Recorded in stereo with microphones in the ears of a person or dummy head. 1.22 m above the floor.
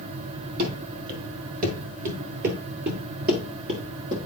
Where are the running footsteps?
50° right (ahead or behind), 2 m; by 4.2 s 25° right (ahead or behind), 1.5 m.